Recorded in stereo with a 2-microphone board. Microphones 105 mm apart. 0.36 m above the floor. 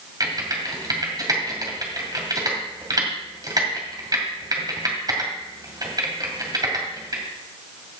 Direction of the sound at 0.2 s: 40° right (ahead or behind).